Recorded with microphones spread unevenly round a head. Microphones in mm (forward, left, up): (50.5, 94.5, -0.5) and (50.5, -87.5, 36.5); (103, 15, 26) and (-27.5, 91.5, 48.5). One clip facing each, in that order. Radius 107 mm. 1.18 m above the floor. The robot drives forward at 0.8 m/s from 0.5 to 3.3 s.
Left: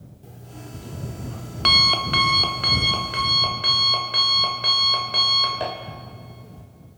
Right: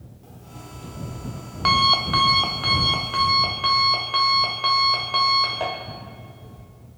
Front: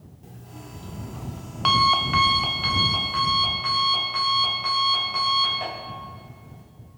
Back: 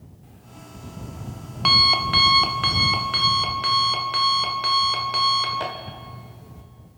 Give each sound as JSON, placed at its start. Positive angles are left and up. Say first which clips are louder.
{"t": 0.2, "sound": "an alarm clock", "louder": "left 2 dB, front 4 dB", "azimuth_deg": 10, "distance_m": 1.1}